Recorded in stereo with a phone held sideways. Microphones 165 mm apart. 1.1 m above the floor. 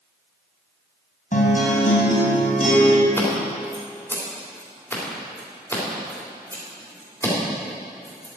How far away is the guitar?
About 2.5 m.